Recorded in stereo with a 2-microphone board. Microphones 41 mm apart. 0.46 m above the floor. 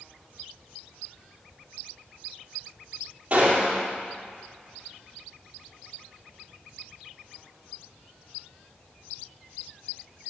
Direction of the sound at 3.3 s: 30° right (ahead or behind).